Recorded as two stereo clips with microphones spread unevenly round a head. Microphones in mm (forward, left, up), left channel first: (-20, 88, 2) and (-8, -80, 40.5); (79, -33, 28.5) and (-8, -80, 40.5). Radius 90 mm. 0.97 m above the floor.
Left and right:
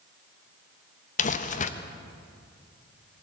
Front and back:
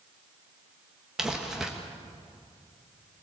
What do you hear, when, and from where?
1.2 s crumpling: 120° left, 1.1 m